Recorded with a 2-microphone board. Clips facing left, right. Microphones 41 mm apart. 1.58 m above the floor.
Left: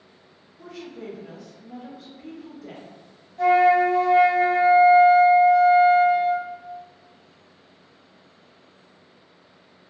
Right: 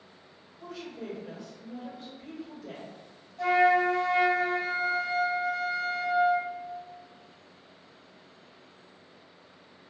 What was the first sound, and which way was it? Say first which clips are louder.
A woman speaking: left 2 dB; 80° left.